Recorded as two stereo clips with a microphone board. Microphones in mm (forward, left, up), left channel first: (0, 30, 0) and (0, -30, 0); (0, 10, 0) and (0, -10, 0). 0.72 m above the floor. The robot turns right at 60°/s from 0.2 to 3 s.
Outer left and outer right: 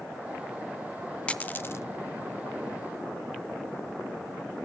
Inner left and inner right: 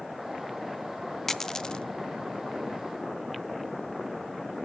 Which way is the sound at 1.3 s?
20° left (ahead or behind).